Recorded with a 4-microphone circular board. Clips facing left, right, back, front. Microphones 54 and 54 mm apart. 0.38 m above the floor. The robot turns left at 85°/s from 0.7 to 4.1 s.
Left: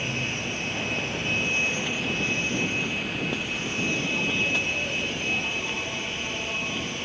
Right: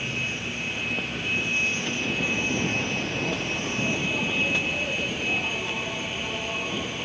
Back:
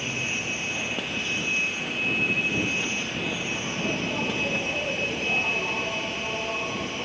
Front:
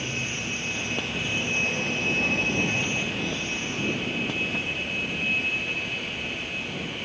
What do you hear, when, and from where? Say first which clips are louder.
0.0 s an insect: left 1 dB, back 1 dB; 120° left; by 7.0 s 170° right